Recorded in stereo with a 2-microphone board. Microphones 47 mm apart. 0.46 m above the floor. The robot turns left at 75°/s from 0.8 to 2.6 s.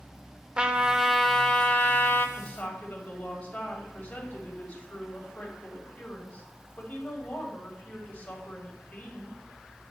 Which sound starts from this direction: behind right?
A trumpet, at 0.6 s.